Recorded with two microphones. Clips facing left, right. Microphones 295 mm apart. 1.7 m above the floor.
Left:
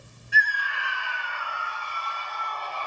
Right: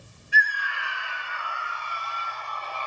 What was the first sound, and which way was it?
A scream, 55° left (ahead or behind).